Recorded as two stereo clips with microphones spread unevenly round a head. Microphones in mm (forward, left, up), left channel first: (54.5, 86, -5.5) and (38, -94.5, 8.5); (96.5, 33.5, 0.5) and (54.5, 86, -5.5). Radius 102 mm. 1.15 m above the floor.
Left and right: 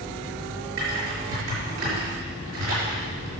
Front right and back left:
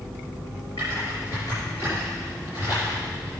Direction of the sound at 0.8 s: 125° right.